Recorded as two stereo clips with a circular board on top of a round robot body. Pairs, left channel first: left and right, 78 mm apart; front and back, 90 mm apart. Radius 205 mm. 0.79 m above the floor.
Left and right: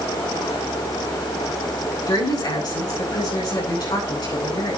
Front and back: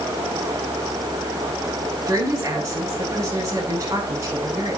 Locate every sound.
2.1 s a woman speaking: 120° left, 9 m